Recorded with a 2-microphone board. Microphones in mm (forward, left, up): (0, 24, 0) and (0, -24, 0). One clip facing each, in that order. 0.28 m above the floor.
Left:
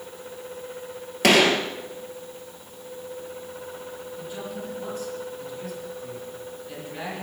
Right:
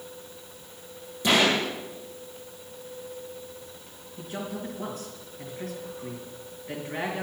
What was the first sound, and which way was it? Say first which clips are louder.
A gunshot: left 4 dB; 80° left.